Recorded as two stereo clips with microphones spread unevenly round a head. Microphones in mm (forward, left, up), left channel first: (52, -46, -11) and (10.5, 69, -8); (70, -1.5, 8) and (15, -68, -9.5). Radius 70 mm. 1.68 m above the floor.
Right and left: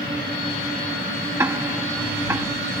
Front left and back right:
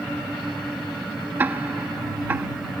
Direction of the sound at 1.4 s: 155° left.